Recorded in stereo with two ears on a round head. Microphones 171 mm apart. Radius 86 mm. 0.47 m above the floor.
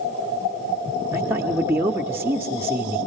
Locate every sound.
1.1 s a man speaking: 10° right (ahead or behind), 1.0 m